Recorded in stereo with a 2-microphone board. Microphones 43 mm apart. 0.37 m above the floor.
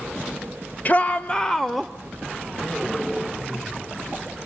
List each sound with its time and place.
0.8 s a shout: 40° left (ahead or behind), 1.2 m; by 1.9 s 5° right (ahead or behind), 1.0 m